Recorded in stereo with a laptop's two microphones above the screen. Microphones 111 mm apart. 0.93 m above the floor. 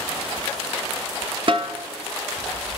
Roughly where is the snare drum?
Right.